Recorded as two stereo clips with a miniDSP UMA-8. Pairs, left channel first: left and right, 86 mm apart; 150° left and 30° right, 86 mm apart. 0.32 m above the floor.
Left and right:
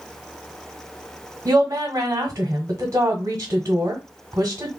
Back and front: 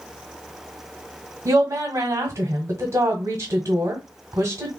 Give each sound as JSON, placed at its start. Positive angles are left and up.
{"t": 1.4, "sound": "a woman speaking", "azimuth_deg": -60, "distance_m": 1.1}